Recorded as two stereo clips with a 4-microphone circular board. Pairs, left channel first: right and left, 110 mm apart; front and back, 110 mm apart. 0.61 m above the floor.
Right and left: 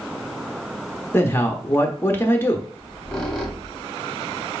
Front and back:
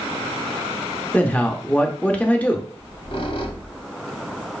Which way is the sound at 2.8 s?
5° right.